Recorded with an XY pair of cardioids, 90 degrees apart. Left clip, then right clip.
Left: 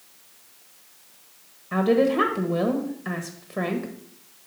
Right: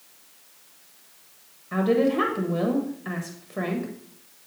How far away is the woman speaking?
About 1.2 m.